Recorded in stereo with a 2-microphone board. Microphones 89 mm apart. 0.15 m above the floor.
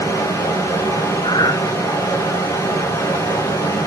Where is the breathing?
55° left (ahead or behind), 1.9 m.